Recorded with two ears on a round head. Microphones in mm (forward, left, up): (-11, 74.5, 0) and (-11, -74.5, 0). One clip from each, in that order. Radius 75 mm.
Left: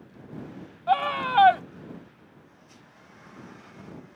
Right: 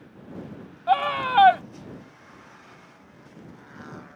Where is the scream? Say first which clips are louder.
Right 2 dB; 5° right (ahead or behind).